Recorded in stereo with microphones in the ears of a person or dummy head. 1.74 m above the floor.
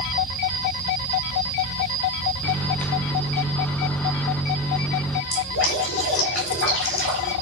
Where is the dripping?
70° left (ahead or behind), 5.5 m.